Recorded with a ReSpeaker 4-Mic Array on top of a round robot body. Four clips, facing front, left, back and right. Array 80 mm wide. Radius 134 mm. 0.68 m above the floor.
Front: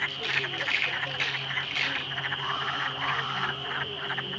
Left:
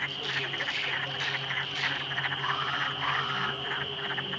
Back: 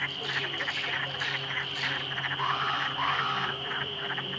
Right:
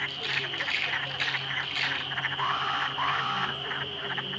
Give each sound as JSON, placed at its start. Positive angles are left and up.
{"t": 0.1, "sound": "a rattle", "azimuth_deg": -15, "distance_m": 1.1}
{"t": 2.4, "sound": "an alarm", "azimuth_deg": -120, "distance_m": 4.0}